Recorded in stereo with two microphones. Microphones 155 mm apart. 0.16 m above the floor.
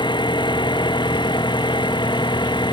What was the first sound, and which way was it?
An engine running, 30° left (ahead or behind).